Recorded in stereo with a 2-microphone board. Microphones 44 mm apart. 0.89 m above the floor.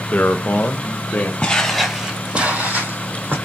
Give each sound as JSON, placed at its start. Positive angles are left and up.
{"t": 0.1, "sound": "a man speaking", "side_deg": 35, "distance_m": 0.5}
{"t": 1.4, "sound": "footsteps", "side_deg": 25, "distance_m": 1.3}